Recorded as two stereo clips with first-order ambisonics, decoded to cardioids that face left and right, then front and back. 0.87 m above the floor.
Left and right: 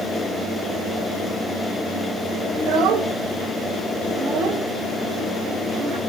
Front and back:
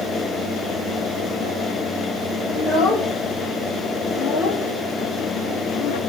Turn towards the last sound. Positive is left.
turn(degrees=-25)